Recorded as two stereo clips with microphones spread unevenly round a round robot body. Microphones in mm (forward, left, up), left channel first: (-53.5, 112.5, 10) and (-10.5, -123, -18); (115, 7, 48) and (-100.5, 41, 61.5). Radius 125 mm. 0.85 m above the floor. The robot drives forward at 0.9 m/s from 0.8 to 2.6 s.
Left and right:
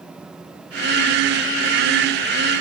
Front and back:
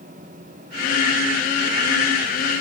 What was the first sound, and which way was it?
Only background noise.